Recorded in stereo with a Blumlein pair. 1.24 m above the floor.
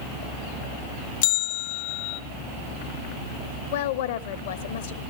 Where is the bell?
55° left, 0.7 m.